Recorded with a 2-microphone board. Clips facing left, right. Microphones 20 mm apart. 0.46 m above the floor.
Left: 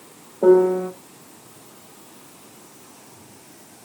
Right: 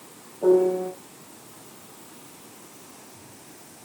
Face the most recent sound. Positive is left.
turn(degrees=35)  # may be behind; listen again after turning